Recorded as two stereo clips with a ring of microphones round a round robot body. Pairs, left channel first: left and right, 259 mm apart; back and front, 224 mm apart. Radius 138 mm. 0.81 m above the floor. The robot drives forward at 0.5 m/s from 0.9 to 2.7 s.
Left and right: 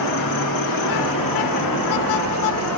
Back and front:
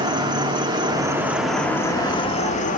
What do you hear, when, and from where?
0.0 s an insect: 75° left, 1.0 m; by 2.8 s 125° left, 1.1 m